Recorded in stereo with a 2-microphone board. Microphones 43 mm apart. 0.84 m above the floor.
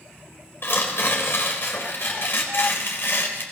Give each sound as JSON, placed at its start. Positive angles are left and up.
{"t": 0.6, "sound": "tearing paper", "side_deg": 60, "distance_m": 4.0}